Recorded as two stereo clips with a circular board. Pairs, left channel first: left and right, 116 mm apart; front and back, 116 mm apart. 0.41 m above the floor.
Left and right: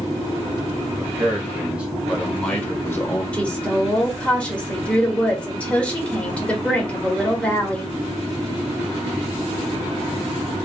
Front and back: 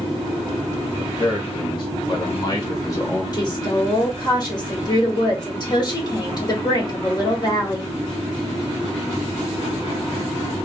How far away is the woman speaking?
About 1.6 m.